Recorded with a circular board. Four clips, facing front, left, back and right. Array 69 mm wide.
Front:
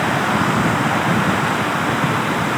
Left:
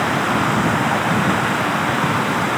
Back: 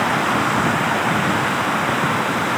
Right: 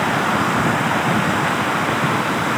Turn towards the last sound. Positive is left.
No sound to turn to.